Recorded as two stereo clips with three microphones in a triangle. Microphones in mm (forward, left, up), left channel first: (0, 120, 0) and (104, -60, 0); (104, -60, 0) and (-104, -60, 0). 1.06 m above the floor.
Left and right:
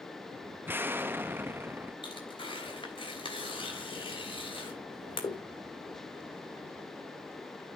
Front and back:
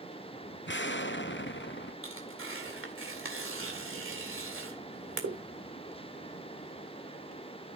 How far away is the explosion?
About 0.7 m.